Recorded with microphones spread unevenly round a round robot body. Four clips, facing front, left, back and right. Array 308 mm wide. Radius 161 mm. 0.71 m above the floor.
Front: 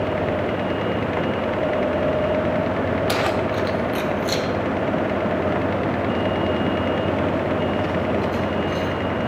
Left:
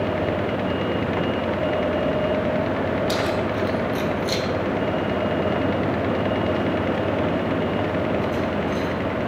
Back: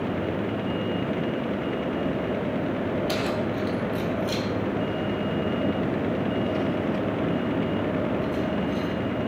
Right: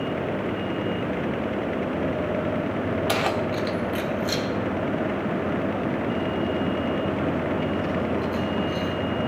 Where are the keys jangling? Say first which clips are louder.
Left 2 dB, front 5 dB; 45° right, 1.1 m; by 8.9 s 25° left, 3.5 m.